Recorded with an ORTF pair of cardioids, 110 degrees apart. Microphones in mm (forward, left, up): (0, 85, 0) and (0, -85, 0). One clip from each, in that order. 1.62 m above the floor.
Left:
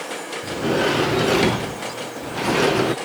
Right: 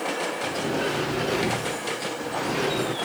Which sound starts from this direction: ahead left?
A sliding door, at 0.4 s.